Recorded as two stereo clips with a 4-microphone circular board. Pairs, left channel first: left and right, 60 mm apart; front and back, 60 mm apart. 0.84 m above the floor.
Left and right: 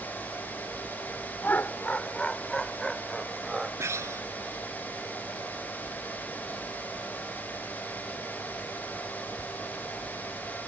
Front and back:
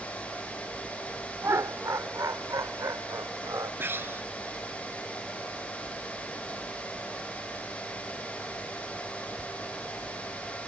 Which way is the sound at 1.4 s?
145° left.